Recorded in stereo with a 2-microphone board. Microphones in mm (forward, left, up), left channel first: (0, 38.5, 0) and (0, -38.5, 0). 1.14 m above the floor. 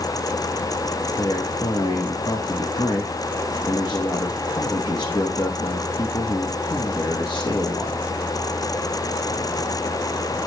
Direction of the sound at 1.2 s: 75° left (ahead or behind).